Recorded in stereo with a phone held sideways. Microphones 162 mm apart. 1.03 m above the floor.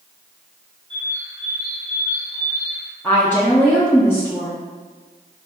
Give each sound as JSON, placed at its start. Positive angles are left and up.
{"t": 0.9, "sound": "a bird", "side_deg": -25, "distance_m": 1.1}
{"t": 3.0, "sound": "a woman speaking", "side_deg": 15, "distance_m": 0.7}